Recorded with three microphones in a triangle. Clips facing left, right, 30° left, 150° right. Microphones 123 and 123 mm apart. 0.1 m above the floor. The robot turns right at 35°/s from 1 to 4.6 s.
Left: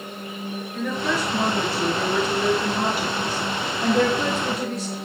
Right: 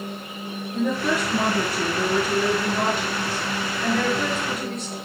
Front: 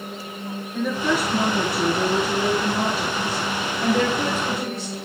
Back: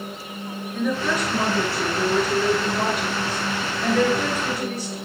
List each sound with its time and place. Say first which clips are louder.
0.7 s a woman speaking: right 3 dB, front 1 dB; 50° right, 1.9 m; by 5.0 s 75° left, 1.9 m